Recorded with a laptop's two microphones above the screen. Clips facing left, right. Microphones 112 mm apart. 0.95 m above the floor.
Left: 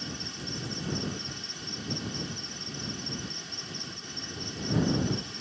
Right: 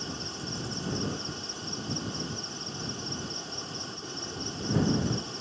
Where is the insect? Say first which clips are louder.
Right 2 dB; 30° right (ahead or behind).